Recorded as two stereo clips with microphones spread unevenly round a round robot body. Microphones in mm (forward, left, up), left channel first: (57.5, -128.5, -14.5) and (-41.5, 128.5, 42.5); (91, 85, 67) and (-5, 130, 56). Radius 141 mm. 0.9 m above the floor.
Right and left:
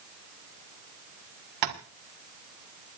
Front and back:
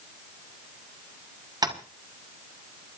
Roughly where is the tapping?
Left.